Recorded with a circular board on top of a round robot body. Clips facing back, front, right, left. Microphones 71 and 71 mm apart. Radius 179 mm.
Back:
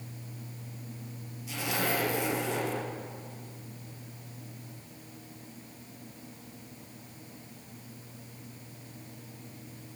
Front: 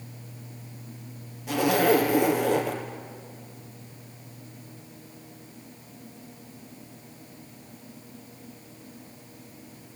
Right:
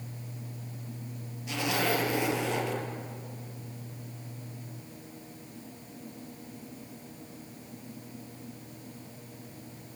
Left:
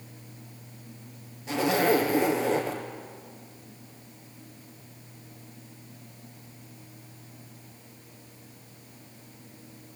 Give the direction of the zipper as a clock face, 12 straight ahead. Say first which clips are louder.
Front 11 dB, left 6 dB; 11 o'clock.